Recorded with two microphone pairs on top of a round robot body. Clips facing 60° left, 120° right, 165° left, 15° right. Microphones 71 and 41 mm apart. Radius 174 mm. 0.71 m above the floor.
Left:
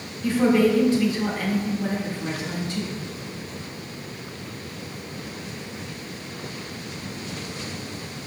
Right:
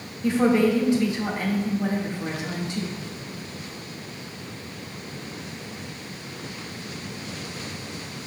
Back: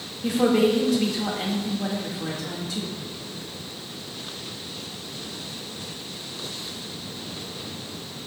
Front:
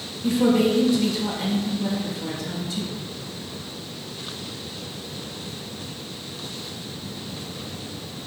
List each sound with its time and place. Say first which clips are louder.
0.2 s a woman speaking: left 1 dB, front 1 dB; 175° left, 2.0 m